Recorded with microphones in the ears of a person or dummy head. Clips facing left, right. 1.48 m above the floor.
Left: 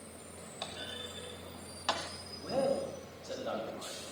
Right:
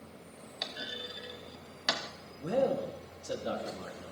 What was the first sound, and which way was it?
A clunk, 25° right (ahead or behind).